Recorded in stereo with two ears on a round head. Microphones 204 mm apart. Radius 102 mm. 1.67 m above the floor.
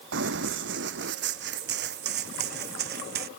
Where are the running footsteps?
55° right (ahead or behind); by 3.3 s 45° right (ahead or behind).